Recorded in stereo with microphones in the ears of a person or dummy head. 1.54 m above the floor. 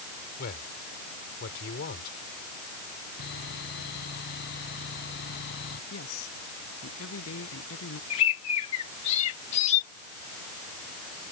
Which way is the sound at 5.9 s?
85° left.